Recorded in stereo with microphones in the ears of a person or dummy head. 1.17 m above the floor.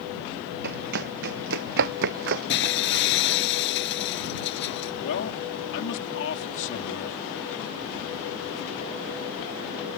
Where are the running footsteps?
55° right (ahead or behind); by 3.3 s 65° right (ahead or behind).